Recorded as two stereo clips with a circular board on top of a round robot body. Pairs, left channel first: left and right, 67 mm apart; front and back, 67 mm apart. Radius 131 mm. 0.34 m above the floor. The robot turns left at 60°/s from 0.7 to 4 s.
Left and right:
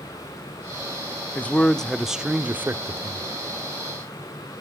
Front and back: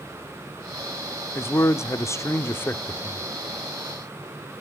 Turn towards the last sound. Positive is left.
turn(degrees=-125)